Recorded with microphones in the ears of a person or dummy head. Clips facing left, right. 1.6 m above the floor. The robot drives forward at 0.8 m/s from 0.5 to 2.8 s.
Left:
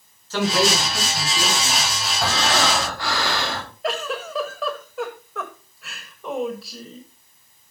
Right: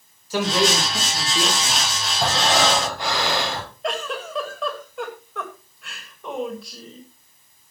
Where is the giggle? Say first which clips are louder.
Left 2 dB; 5° left (ahead or behind), 1.5 m.